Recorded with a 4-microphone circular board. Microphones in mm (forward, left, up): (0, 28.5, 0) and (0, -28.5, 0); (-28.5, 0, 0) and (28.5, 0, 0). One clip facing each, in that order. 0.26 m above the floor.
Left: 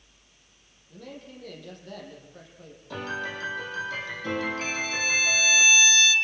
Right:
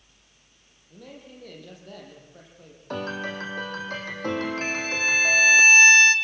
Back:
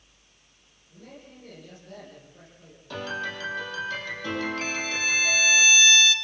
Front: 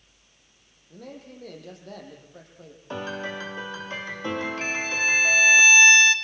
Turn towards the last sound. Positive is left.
turn(degrees=-50)